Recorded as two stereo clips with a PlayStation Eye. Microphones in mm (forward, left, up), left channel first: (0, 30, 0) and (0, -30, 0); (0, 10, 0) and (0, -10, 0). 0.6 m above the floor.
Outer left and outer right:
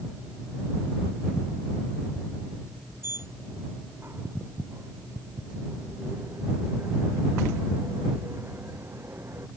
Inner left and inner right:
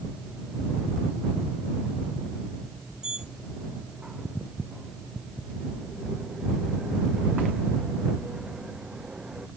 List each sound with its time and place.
3.0 s a sliding door: 40° right (ahead or behind)